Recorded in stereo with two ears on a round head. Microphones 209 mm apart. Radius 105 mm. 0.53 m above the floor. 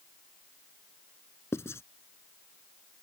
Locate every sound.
1.5 s writing: 10° left (ahead or behind)